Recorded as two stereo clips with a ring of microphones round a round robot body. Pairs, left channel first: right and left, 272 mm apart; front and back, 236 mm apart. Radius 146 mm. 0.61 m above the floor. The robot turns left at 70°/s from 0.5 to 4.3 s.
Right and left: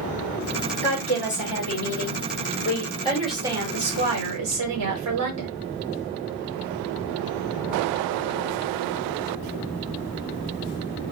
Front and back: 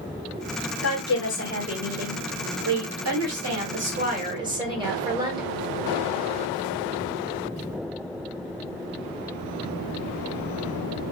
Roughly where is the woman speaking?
Ahead.